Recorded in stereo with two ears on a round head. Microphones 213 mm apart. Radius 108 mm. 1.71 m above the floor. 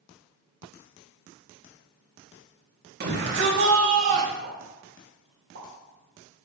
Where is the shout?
45° right (ahead or behind), 2 m; by 4.3 s 85° right, 1.7 m.